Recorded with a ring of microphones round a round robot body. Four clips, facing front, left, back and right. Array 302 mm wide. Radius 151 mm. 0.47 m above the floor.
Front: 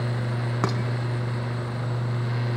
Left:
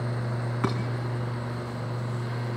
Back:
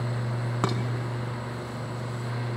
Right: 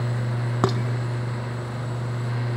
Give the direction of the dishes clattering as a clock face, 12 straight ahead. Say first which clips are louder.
Right 6 dB, front 1 dB; 3 o'clock.